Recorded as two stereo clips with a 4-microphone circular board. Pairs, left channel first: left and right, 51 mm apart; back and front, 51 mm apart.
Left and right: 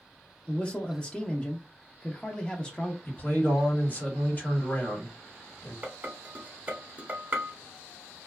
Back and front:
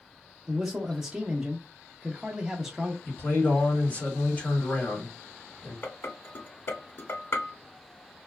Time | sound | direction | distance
0.5 | a man speaking | 60° left | 0.6 m
3.0 | a man speaking | 135° left | 1.7 m
5.8 | dishes clattering | 140° right | 1.1 m